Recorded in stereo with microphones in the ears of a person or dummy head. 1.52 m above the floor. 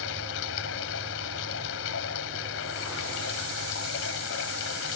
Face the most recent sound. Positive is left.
turn(degrees=75)  # may be behind; listen again after turning